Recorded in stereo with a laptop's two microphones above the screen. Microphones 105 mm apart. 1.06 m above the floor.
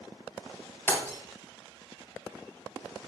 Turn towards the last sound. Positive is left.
turn(degrees=20)  # may be behind; listen again after turning